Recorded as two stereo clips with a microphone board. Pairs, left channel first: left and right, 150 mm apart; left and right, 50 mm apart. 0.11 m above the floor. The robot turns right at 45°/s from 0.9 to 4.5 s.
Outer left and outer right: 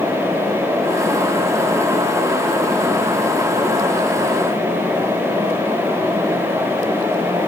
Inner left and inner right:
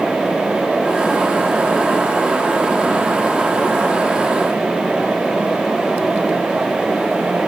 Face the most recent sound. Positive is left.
No sound to turn to.